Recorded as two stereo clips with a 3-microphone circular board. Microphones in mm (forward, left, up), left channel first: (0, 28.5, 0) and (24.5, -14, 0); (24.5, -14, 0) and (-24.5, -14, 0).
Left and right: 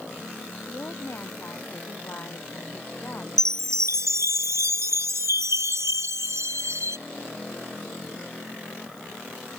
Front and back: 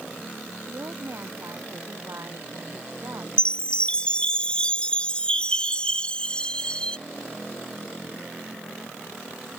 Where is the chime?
70° right.